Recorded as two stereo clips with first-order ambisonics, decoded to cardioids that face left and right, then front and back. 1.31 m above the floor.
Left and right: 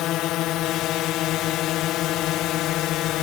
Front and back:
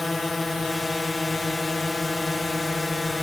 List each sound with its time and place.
0.0 s a drone: 75° left